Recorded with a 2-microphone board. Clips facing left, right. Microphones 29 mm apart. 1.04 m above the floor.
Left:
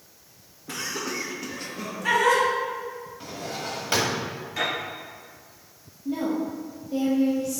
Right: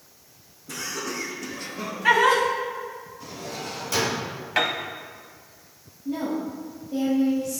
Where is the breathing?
I don't hear breathing.